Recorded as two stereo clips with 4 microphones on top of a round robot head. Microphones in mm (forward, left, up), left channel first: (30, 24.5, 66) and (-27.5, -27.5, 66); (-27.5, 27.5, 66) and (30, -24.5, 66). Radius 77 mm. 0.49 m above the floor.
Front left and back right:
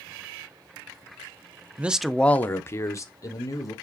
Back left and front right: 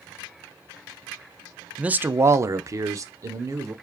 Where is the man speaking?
100° right, 0.7 m; by 3.7 s 5° left, 1.9 m.